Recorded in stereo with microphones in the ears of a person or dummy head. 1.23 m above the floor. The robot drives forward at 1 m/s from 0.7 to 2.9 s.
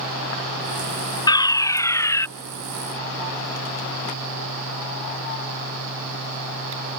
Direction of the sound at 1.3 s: 15° left (ahead or behind).